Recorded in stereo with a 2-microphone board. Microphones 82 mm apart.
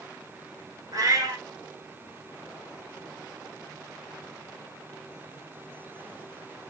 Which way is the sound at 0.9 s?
55° right (ahead or behind).